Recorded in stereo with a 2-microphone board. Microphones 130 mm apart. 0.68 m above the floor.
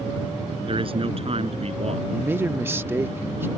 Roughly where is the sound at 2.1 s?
Centre.